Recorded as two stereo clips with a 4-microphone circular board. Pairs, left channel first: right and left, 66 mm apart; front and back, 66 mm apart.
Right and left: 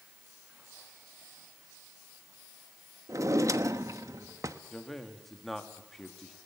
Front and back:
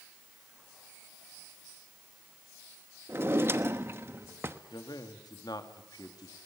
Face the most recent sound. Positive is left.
turn(degrees=-5)